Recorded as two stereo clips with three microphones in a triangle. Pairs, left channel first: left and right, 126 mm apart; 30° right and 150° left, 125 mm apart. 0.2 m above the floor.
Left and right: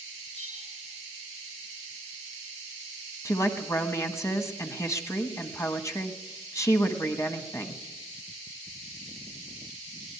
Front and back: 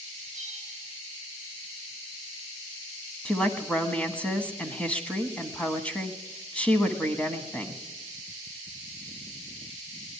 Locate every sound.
0.3 s a bell: 55° left, 7.5 m
3.2 s a woman speaking: 45° left, 1.3 m